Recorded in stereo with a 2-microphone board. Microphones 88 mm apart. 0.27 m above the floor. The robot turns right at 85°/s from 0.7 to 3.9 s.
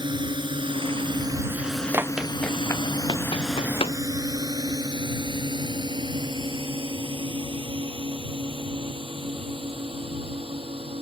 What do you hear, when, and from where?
0.0 s a drone: 55° right (ahead or behind); by 11.0 s 80° right
1.9 s running footsteps: 25° right (ahead or behind); by 4.0 s 70° left (ahead or behind)